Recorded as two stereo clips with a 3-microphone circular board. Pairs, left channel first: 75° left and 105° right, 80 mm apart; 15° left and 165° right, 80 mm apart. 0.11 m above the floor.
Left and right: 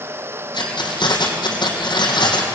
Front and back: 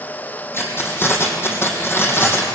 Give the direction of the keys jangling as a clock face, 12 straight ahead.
10 o'clock.